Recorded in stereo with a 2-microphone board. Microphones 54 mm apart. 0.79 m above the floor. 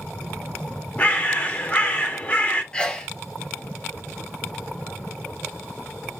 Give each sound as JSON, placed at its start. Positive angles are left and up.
{"t": 1.0, "sound": "a bird", "side_deg": 30, "distance_m": 0.7}
{"t": 2.7, "sound": "a sneeze", "side_deg": 15, "distance_m": 0.8}